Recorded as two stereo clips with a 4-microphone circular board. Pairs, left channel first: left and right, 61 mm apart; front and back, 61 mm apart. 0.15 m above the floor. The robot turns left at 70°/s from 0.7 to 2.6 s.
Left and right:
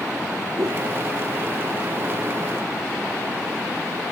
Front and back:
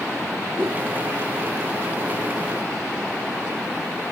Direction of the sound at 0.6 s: 125° right.